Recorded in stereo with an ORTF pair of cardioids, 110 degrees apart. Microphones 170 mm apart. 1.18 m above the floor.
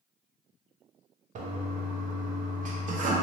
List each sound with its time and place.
1.4 s a toilet flushing: 50° right, 0.7 m